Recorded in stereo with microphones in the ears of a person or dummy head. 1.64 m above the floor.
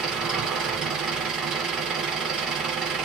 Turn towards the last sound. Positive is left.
turn(degrees=-5)  # may be behind; listen again after turning